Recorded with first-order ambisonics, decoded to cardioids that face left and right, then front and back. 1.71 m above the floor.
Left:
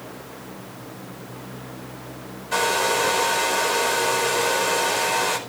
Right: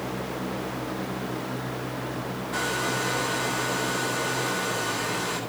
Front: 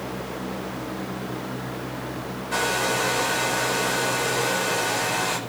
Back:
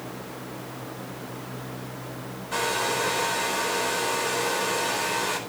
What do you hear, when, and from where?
2.5 s a hair dryer: 80° left, 5 m